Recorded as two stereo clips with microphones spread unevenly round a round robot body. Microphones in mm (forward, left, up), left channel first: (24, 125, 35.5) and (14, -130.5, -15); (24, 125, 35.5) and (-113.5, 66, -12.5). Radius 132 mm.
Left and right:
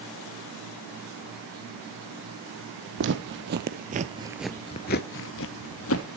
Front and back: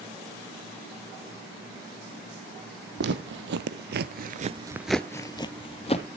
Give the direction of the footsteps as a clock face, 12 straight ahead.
5 o'clock.